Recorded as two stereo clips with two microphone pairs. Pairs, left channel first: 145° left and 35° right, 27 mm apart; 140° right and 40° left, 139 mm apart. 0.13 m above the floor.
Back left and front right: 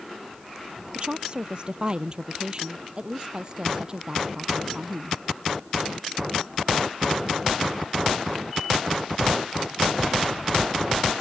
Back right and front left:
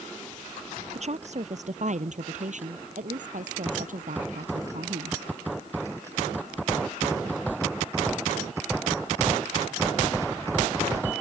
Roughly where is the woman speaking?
Ahead.